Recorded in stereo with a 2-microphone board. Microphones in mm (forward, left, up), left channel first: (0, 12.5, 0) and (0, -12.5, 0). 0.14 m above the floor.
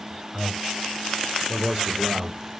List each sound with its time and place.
0.3 s a man speaking: centre (ahead or behind), 1.6 m; by 2.4 s 35° right (ahead or behind), 3 m